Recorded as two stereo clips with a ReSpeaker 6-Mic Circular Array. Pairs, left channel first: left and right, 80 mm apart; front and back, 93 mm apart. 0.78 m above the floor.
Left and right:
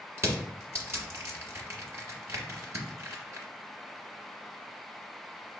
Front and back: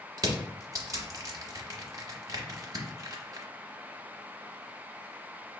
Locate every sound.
0.2 s crushing: 140° right, 1.0 m